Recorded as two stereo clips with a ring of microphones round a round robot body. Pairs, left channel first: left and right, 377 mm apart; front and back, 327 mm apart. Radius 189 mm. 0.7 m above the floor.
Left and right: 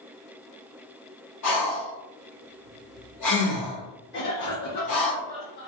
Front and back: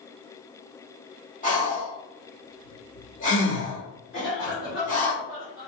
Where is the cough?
50° left, 1.2 m.